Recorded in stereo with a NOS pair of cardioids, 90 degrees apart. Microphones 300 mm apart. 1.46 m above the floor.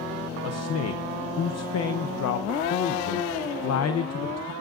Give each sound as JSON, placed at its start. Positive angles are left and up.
{"t": 0.4, "sound": "a man speaking", "azimuth_deg": 60, "distance_m": 0.8}